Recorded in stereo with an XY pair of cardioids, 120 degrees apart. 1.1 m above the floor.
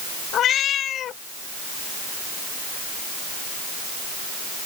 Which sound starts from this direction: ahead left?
A cat meowing, at 0.3 s.